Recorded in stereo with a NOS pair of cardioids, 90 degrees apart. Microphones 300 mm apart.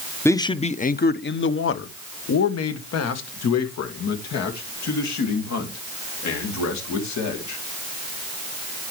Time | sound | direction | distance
0.2 | a man speaking | 10° left | 0.8 m